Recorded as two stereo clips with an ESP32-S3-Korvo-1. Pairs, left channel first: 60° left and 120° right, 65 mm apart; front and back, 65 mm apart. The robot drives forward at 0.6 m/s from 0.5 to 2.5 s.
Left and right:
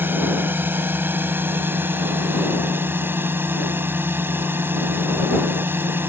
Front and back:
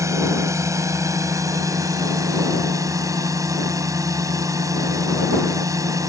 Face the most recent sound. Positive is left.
turn(degrees=-170)